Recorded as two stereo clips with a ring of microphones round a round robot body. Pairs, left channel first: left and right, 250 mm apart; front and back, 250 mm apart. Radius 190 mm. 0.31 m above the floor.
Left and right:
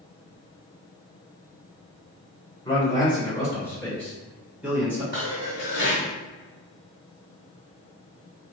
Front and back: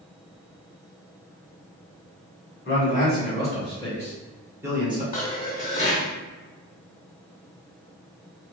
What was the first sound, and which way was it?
A man speaking, 25° left.